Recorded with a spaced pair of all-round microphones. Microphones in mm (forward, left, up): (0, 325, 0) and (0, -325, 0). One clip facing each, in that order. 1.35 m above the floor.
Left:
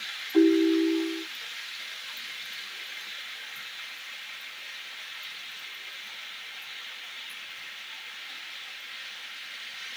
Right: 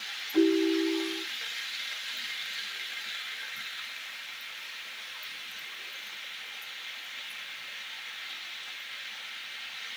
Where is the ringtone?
45° right (ahead or behind), 2.5 m.